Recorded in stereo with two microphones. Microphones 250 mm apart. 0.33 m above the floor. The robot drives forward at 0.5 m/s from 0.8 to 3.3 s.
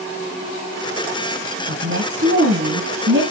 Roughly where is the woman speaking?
Right.